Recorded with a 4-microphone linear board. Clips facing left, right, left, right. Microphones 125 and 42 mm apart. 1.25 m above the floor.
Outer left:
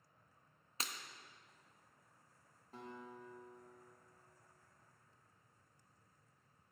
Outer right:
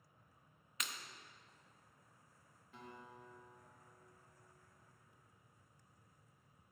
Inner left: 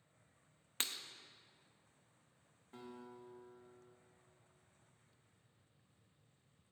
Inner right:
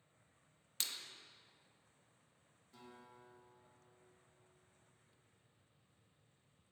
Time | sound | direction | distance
0.8 | breaking glass | 35° left (ahead or behind) | 0.6 m
2.7 | a guitar | 40° left (ahead or behind) | 1.6 m